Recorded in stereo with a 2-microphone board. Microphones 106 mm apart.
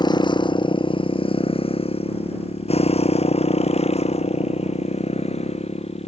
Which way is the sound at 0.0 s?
45° left (ahead or behind).